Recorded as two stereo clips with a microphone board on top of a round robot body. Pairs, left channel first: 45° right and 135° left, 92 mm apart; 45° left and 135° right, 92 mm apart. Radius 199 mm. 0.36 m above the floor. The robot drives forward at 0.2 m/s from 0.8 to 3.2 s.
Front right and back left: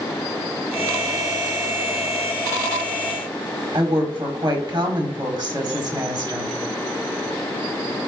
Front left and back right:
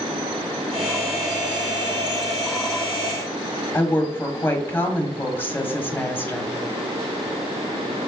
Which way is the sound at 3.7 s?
110° left.